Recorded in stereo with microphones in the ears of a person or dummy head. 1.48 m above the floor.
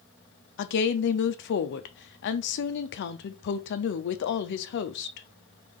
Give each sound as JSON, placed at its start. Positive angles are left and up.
{"t": 0.6, "sound": "a woman speaking", "side_deg": 60, "distance_m": 0.5}